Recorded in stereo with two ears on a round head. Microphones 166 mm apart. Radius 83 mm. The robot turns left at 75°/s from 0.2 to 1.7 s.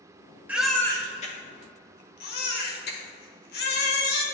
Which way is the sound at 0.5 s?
10° right (ahead or behind).